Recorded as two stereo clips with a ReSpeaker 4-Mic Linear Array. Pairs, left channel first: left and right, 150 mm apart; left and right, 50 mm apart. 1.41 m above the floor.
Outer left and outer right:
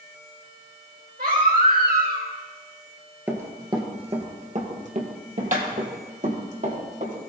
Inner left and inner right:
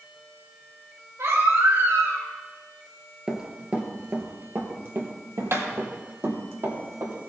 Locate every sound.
1.2 s a baby crying: 80° right, 3.5 m
3.3 s running footsteps: 15° right (ahead or behind), 1.8 m; by 7.1 s 55° right (ahead or behind), 5 m